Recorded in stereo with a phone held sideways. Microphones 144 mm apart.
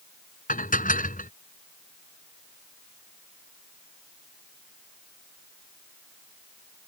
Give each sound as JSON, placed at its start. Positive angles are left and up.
{"t": 0.5, "sound": "dishes clattering", "side_deg": 85}